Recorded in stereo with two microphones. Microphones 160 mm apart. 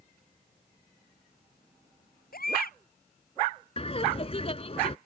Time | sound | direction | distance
2.3 | a baby crying | 70° left (ahead or behind) | ?
3.8 | laughter | 40° left (ahead or behind) | ?